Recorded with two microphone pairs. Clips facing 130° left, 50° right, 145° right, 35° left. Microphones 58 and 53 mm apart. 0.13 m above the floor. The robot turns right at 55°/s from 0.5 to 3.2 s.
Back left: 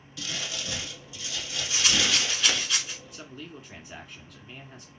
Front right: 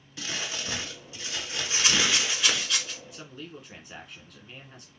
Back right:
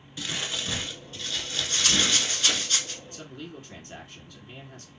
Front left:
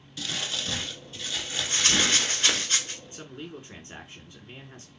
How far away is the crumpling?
About 0.8 m.